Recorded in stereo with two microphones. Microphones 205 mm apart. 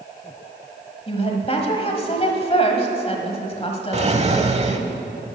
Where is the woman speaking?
30° left (ahead or behind), 1.4 m.